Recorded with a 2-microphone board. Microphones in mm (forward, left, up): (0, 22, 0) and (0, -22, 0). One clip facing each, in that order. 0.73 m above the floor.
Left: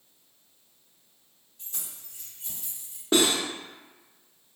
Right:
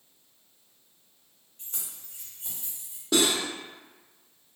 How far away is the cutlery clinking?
About 0.6 m.